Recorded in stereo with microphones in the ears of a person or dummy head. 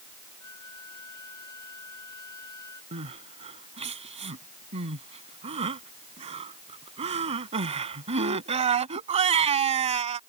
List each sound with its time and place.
0.4 s a flute: 20° left (ahead or behind)
2.9 s crying: 30° right (ahead or behind)